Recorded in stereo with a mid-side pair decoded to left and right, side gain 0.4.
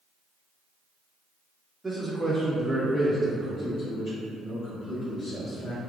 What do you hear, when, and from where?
1.8 s a man speaking: 20° right, 1.3 m; by 5.8 s 70° left, 2.5 m